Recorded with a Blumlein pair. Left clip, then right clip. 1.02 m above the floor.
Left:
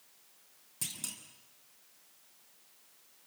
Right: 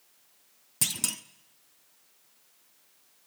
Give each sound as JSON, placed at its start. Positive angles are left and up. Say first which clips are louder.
{"t": 0.8, "sound": "a clunk", "louder": "right 11 dB", "azimuth_deg": -60, "distance_m": 1.1}